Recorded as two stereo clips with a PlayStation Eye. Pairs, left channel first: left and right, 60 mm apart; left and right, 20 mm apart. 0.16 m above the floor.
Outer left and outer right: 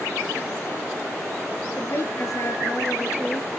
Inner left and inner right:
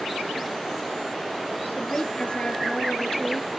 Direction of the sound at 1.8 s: 60° left (ahead or behind).